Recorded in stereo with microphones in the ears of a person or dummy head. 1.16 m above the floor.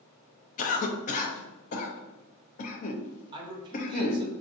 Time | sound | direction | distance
0.6 | a cough | 40° left (ahead or behind) | 0.6 m
3.3 | a man speaking | 20° right (ahead or behind) | 0.7 m